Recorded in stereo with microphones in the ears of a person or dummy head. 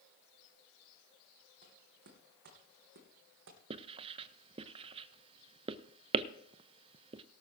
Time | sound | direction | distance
1.6 | footsteps | 45° right (ahead or behind) | 3 m
3.7 | writing | 35° right (ahead or behind) | 0.5 m